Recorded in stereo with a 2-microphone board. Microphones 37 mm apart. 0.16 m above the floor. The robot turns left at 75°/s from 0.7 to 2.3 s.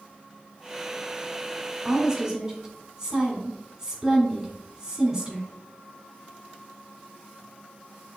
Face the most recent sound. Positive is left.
turn(degrees=-15)  # may be behind; listen again after turning